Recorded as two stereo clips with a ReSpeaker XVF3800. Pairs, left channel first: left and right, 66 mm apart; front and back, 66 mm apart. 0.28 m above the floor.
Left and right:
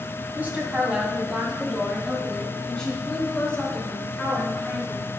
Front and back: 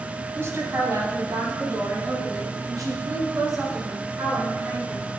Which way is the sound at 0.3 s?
145° right.